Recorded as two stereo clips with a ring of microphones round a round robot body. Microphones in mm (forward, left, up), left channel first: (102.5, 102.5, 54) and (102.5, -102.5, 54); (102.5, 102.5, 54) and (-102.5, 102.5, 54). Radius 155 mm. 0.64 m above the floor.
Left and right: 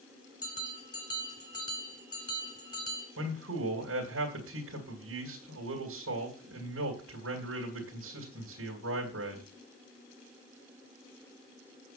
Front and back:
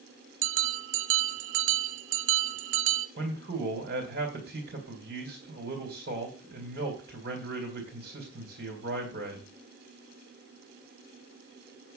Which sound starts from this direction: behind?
A bell, at 0.4 s.